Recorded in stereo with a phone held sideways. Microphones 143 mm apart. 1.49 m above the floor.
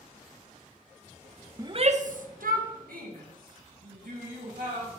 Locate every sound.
1.6 s a shout: 20° right (ahead or behind), 0.6 m; by 4.9 s 80° right, 4.5 m